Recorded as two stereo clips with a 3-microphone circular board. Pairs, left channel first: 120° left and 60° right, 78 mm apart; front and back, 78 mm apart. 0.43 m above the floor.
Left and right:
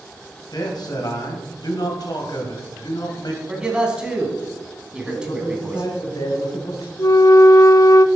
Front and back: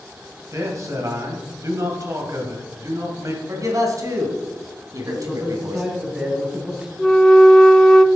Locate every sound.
0.5 s a man speaking: 140° left, 2.5 m
3.5 s a man speaking: 140° right, 3 m
5.0 s a man speaking: 100° left, 3.5 m
7.0 s a flute: 80° left, 0.6 m